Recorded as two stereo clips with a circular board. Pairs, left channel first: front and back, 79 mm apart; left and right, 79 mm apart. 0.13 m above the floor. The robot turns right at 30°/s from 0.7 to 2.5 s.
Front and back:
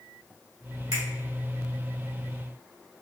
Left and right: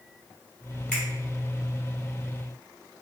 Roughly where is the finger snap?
Behind.